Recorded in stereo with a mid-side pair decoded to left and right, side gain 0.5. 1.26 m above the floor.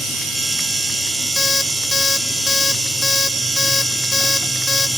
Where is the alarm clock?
25° left, 1.0 m.